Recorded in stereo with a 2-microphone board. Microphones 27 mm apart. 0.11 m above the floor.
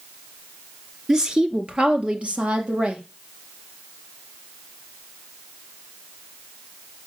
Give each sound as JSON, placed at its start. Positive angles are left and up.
{"t": 1.1, "sound": "a woman speaking", "side_deg": -20, "distance_m": 1.2}